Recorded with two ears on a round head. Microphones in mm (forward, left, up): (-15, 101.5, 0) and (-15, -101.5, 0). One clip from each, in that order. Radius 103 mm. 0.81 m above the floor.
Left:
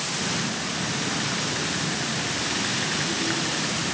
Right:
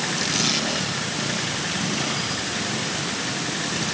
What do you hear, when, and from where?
Only background noise.